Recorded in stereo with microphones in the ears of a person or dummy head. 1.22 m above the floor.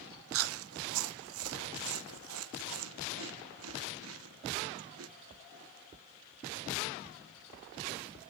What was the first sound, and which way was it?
Chewing, 75° right (ahead or behind).